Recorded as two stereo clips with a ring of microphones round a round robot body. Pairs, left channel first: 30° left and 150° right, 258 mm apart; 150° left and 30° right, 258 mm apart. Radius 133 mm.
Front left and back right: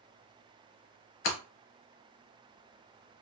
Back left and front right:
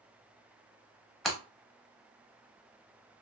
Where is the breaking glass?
60° left, 1.0 m.